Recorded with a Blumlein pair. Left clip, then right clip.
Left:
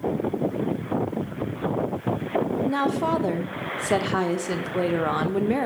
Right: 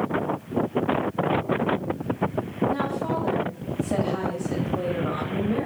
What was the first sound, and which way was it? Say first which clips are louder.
A woman speaking: left 3 dB; 40° left.